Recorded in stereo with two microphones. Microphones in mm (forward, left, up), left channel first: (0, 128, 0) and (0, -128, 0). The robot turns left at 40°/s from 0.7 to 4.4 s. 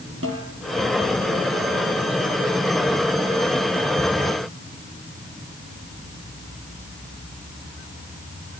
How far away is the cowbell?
I don't hear a cowbell.